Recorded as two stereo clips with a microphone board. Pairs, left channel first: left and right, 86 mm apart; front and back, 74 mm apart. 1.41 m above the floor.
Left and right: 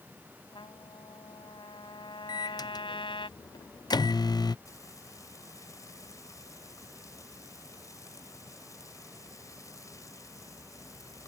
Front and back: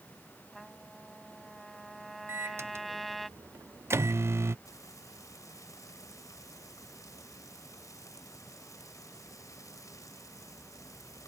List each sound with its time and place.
0.5 s a trumpet: 90° left
2.3 s a microwave: 125° left
4.7 s frying: 40° left